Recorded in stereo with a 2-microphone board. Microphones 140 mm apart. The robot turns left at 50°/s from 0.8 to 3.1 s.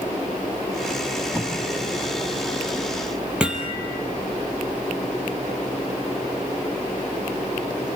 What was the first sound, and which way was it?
Tape being pulled, 15° right (ahead or behind).